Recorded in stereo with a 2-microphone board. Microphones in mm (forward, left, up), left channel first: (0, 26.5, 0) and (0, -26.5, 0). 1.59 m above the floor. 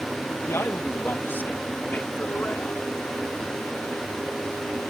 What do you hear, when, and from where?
0.5 s a man speaking: 55° left (ahead or behind); by 2.8 s 30° left (ahead or behind)